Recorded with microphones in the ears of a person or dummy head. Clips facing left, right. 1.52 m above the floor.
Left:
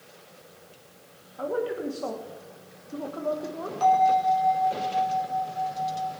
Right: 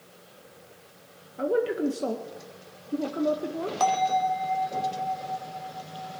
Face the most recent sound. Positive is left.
turn(degrees=-65)  # may be behind; listen again after turning